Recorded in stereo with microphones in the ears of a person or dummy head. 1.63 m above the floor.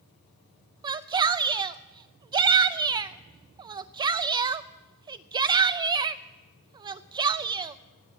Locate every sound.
0.8 s a shout: 25° right (ahead or behind), 0.6 m